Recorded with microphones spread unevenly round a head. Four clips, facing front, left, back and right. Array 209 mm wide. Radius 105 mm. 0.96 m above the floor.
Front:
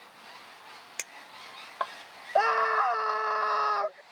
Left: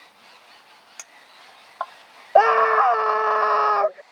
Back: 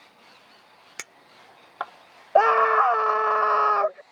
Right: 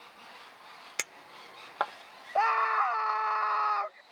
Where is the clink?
125° right.